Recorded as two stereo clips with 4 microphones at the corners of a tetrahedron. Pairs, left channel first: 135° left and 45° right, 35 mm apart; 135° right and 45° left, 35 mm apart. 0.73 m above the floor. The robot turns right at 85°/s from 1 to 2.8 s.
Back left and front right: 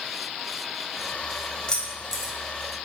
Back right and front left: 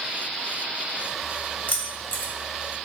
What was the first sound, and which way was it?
Keys jangling, 165° right.